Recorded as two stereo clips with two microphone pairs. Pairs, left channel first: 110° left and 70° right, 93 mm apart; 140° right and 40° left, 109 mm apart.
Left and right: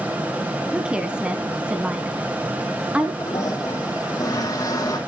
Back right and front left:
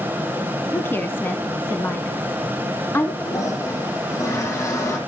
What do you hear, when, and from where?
0.7 s a woman speaking: 130° right, 1.1 m
3.2 s a toilet flushing: 160° left, 3 m